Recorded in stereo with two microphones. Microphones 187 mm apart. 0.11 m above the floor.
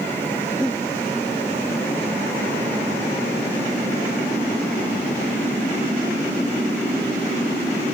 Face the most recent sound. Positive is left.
turn(degrees=5)  # may be behind; listen again after turning